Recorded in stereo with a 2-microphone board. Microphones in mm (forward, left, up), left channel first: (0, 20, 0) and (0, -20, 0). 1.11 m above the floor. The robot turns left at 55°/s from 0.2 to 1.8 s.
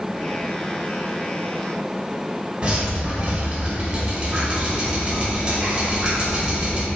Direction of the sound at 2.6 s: 25° right (ahead or behind).